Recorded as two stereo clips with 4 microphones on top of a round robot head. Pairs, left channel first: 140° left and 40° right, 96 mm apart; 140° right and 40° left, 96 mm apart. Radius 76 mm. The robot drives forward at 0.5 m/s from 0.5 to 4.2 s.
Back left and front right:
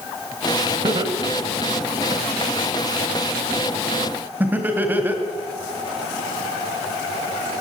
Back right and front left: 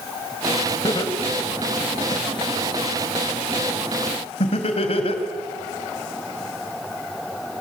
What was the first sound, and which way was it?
Laughter, 85° right.